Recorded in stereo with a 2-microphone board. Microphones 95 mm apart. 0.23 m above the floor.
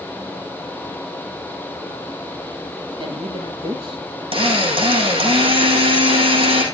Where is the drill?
75° right (ahead or behind), 6 m.